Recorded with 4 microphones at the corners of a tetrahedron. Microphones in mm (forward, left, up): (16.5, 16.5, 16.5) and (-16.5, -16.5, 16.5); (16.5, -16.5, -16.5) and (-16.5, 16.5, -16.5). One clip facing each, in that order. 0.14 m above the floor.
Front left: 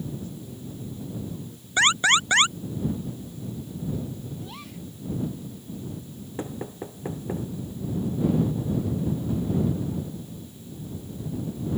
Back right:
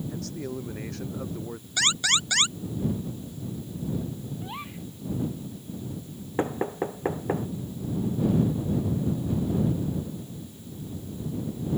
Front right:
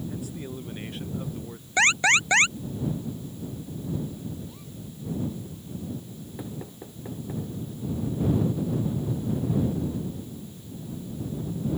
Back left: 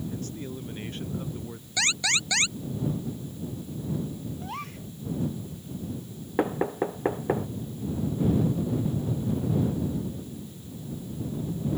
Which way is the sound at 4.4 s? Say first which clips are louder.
Back right 2 dB, back left 5 dB; 160° left.